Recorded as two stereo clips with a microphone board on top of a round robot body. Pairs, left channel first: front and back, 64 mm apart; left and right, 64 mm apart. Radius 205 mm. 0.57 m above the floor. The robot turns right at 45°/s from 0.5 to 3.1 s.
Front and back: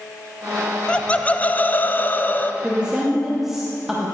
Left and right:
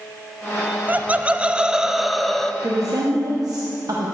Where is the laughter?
60° right, 0.6 m; by 2.5 s 15° left, 0.6 m.